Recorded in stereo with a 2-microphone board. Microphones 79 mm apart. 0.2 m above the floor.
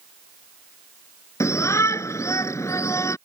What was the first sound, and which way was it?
A shout, 40° left (ahead or behind).